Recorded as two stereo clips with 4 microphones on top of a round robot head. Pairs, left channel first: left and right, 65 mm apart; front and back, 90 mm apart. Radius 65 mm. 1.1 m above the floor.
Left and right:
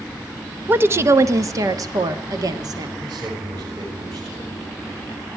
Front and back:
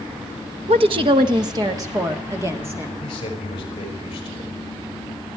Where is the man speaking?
50° right, 6 m.